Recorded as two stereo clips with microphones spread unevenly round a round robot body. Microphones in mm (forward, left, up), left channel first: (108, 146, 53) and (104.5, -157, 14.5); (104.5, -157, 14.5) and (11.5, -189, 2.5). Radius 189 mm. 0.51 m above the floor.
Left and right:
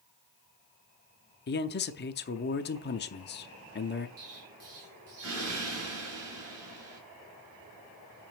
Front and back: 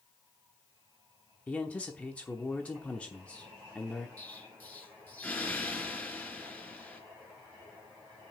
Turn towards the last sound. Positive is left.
turn(degrees=-55)